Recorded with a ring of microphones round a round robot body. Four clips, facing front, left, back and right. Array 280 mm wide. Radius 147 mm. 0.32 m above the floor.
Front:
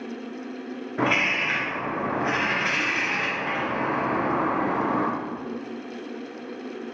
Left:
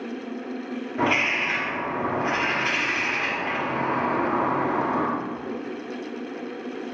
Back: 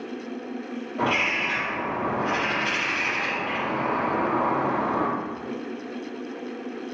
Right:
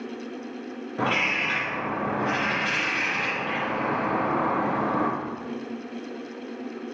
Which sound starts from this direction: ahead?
A bird, at 1.0 s.